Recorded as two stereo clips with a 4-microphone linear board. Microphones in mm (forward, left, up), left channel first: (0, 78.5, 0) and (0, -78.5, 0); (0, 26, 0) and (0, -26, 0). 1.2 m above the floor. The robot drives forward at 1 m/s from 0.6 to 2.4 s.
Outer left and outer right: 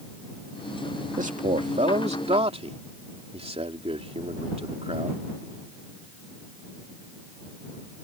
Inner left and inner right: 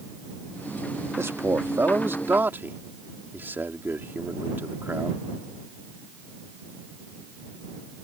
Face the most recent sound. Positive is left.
turn(degrees=-40)  # may be behind; listen again after turning